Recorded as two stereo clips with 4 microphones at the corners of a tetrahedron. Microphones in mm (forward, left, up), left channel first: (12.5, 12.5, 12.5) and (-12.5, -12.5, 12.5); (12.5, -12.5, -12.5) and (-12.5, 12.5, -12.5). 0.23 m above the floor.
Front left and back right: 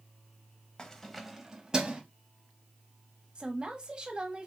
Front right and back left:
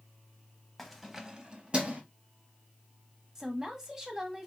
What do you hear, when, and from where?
0.8 s keys jangling: 30° left, 0.9 m; by 2.0 s 170° left, 1.3 m
3.4 s a woman speaking: 170° right, 1.2 m